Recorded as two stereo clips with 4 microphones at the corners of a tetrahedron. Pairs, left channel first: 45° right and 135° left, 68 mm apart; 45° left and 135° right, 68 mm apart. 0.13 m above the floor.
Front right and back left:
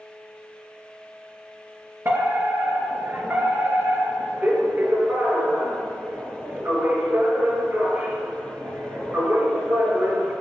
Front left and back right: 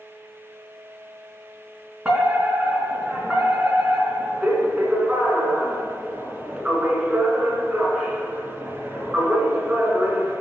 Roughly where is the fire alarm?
Behind.